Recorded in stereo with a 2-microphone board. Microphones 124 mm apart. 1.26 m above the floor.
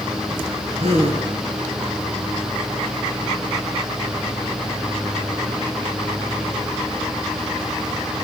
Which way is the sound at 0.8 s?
55° right (ahead or behind).